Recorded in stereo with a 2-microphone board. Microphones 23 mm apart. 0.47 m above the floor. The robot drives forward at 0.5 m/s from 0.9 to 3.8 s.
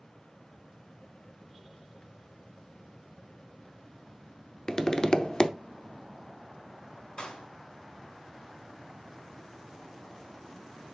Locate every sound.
4.7 s tapping: 30° left (ahead or behind), 0.6 m
7.2 s a clap: 45° left (ahead or behind), 4 m